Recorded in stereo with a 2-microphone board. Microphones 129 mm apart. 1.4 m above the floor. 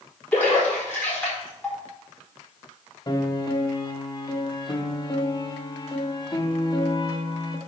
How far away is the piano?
About 1.1 m.